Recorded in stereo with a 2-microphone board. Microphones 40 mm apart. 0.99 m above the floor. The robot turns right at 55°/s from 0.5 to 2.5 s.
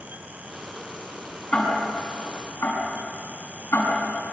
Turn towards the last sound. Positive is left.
turn(degrees=70)  # may be behind; listen again after turning